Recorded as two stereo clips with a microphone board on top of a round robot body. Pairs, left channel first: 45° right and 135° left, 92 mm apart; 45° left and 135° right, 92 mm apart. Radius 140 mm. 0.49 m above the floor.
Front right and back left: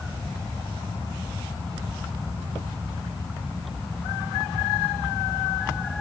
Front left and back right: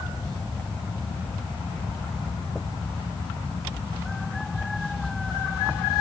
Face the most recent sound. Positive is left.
No sound to turn to.